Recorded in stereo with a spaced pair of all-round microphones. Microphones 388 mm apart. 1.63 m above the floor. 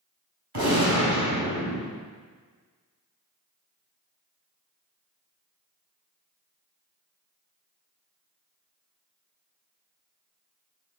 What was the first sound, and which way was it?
A gunshot, 90° right.